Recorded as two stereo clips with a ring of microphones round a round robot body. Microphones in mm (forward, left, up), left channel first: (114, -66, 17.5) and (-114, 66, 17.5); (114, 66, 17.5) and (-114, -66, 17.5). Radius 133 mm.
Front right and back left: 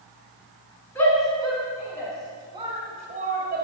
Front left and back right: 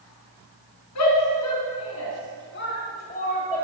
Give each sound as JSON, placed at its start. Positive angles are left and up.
{"t": 0.9, "sound": "a shout", "azimuth_deg": 45, "distance_m": 4.0}